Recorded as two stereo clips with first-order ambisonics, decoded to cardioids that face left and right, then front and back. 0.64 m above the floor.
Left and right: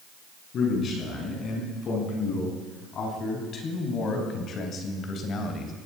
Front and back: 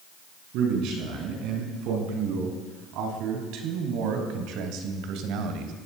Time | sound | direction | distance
0.5 | a man speaking | 145° left | 5.5 m